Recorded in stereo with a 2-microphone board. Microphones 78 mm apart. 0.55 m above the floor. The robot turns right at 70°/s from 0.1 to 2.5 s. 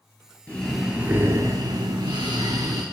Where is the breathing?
160° left, 1.9 m; by 2.8 s 60° right, 1.9 m.